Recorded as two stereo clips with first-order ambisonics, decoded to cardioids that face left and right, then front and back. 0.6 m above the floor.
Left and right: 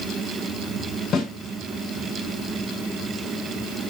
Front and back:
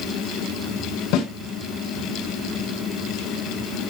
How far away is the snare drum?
About 6.5 m.